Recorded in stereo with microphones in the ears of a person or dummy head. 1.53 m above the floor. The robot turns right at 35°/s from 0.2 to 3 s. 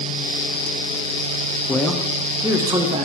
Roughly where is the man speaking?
Behind.